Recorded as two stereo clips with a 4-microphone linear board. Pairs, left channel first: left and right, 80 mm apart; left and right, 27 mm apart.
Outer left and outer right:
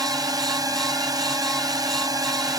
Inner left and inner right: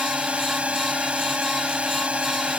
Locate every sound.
0.0 s a drone: 50° right (ahead or behind)